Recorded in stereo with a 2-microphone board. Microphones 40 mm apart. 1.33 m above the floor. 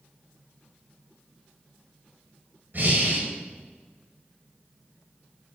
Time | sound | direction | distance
2.7 | breathing | 50° right (ahead or behind) | 1.7 m